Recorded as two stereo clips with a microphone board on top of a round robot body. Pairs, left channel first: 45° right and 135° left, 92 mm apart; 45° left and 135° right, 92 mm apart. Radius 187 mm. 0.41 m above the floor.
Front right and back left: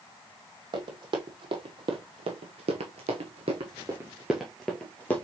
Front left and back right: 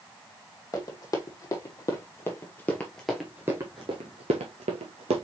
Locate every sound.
0.7 s running footsteps: 100° left, 1.6 m; by 5.2 s 120° right, 0.9 m